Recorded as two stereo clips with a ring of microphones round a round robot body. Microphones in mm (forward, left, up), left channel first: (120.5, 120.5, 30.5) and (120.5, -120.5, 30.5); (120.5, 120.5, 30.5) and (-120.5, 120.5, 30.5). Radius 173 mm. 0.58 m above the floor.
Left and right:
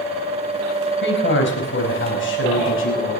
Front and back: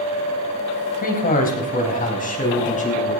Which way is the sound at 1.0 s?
50° left.